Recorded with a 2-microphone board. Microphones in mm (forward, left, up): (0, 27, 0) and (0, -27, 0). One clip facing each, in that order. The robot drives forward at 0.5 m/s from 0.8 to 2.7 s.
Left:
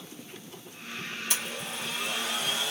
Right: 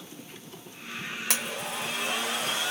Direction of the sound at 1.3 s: 85° right.